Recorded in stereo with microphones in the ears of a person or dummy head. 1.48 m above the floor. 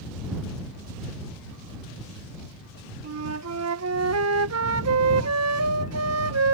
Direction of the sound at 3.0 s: 80° right.